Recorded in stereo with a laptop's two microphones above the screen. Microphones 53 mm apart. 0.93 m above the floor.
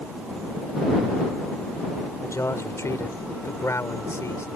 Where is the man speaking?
65° left (ahead or behind).